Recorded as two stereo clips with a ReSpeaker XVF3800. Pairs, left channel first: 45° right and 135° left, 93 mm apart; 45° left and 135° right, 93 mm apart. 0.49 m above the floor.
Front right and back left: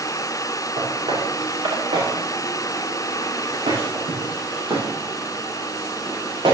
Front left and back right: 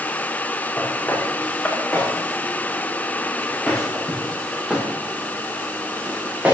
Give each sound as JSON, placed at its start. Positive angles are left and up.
{"t": 0.8, "sound": "footsteps", "azimuth_deg": 115, "distance_m": 7.5}